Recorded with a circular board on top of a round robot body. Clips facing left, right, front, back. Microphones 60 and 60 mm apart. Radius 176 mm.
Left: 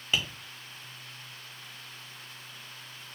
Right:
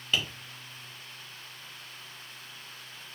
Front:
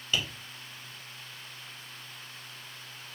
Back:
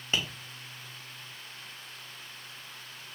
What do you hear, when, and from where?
0.1 s tapping: 160° left, 1.3 m